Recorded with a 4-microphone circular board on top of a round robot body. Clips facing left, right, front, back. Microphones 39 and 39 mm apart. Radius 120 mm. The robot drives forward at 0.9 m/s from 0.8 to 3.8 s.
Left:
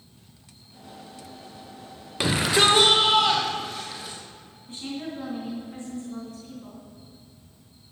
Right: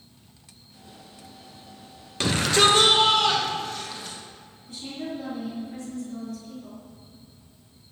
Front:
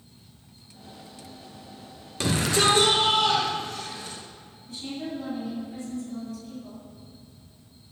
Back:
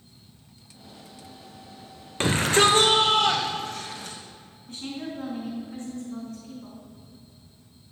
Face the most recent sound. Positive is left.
turn(degrees=145)